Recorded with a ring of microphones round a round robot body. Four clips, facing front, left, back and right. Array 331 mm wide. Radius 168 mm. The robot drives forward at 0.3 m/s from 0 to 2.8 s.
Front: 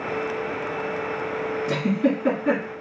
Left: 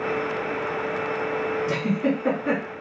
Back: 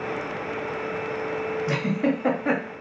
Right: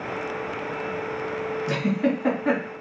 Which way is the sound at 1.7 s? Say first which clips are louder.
Right 3 dB, front 3 dB; 150° right.